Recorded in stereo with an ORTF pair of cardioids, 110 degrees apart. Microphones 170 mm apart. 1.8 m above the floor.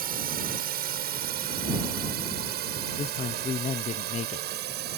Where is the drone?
60° right; by 5.0 s 70° right.